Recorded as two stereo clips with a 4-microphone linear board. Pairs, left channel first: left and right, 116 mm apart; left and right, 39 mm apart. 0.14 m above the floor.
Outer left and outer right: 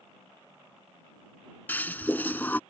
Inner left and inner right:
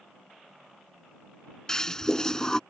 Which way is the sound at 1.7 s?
15° left (ahead or behind).